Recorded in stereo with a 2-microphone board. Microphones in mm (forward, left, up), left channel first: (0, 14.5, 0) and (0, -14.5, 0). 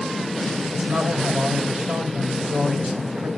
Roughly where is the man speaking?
Right.